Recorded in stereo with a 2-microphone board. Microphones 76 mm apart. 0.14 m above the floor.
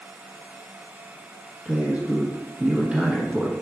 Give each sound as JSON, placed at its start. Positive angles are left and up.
{"t": 1.6, "sound": "a man speaking", "side_deg": -15, "distance_m": 1.2}